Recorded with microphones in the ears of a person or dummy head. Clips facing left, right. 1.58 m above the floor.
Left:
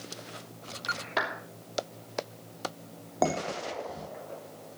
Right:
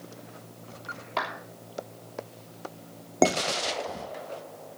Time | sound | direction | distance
1.2 | a clap | 15° left (ahead or behind) | 3 m
3.2 | dishes clattering | 40° right (ahead or behind) | 3 m